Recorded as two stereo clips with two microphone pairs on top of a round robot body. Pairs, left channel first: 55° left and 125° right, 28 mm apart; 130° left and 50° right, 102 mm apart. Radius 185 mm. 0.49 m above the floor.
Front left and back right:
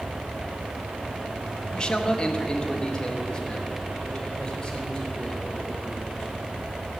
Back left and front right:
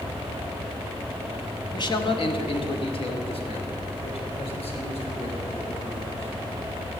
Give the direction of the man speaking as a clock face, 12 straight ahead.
8 o'clock.